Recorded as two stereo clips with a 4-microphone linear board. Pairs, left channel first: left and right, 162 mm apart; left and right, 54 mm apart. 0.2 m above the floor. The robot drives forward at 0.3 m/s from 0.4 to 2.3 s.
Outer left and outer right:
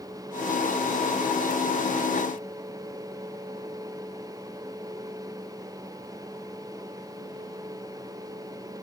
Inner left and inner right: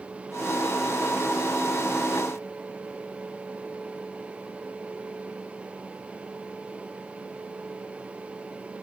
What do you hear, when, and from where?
Only background noise.